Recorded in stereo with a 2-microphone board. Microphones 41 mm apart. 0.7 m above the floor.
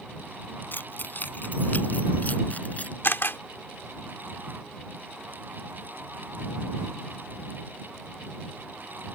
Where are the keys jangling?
55° left (ahead or behind); by 2.9 s 40° left (ahead or behind).